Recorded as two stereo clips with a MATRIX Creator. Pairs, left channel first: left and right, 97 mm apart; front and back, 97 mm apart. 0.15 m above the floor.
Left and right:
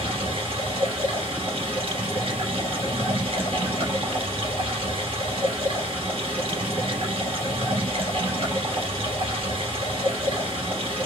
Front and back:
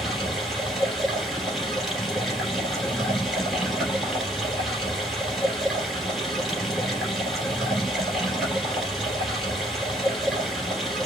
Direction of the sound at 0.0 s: 85° right.